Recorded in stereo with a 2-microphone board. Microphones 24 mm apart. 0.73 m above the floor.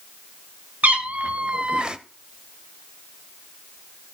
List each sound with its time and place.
0.8 s a cat meowing: 70° right (ahead or behind), 1.3 m; by 2.0 s 30° right (ahead or behind), 0.7 m